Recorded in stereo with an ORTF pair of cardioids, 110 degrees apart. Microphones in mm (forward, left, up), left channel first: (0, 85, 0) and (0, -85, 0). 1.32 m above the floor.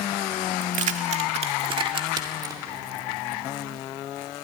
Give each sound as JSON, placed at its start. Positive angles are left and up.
{"t": 0.6, "sound": "keys jangling", "azimuth_deg": -55, "distance_m": 1.8}